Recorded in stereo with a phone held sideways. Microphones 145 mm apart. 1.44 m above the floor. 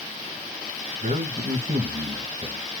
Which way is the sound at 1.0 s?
60° right (ahead or behind).